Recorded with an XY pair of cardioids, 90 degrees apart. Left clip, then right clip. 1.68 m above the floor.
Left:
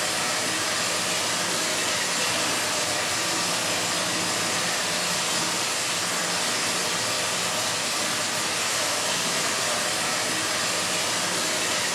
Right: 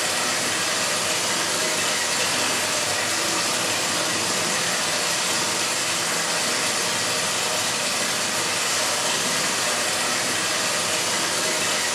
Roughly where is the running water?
Ahead right.